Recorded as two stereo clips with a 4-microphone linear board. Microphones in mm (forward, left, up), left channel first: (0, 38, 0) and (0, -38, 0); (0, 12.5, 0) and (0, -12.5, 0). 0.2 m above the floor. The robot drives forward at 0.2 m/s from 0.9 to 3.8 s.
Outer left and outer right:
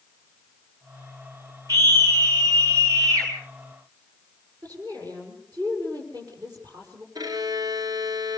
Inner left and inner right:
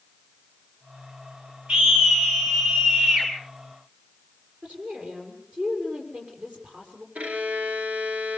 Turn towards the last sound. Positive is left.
turn(degrees=-70)  # may be behind; listen again after turning